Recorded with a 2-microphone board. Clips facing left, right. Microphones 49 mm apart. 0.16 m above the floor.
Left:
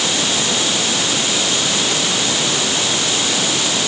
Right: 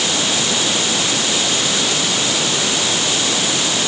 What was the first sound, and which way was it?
Only background noise.